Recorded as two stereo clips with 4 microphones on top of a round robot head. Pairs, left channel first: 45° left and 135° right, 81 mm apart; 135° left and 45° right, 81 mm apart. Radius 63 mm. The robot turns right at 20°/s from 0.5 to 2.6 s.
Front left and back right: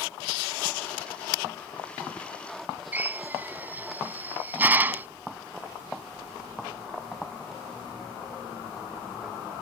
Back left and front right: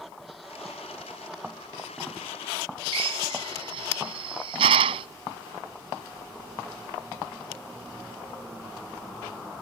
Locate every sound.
2.9 s a drill: 65° right